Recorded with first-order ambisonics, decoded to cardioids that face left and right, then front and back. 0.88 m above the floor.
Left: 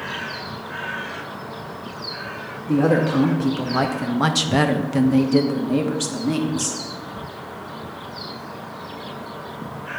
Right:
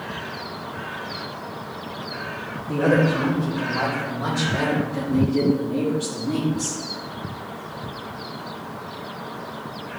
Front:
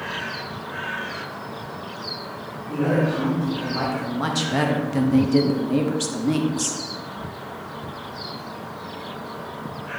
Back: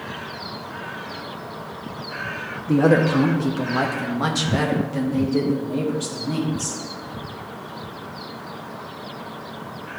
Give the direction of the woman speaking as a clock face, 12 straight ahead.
7 o'clock.